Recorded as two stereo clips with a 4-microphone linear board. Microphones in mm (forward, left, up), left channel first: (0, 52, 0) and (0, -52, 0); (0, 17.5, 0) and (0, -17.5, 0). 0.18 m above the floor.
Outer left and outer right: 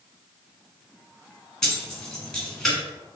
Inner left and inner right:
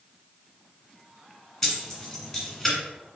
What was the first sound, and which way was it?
Keys jangling, 5° left (ahead or behind).